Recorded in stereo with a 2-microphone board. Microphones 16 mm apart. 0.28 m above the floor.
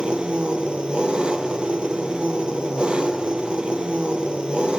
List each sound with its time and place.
0.0 s an engine running: 80° right, 2.5 m